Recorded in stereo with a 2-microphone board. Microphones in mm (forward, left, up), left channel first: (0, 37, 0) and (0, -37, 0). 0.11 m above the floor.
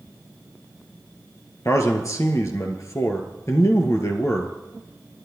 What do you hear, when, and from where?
1.6 s a man speaking: 50° left (ahead or behind), 1.6 m